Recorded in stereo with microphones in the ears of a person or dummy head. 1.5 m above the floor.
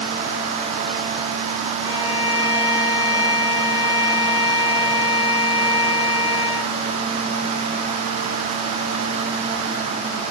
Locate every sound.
1.8 s a violin: 10° right (ahead or behind), 7.5 m